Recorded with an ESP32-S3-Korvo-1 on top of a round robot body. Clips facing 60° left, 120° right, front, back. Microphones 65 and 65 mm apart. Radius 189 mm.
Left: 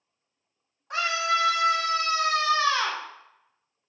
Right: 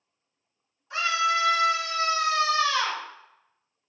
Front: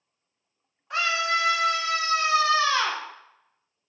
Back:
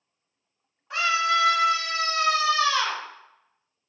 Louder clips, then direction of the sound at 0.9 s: Right 1 dB, back 2 dB; 90° left.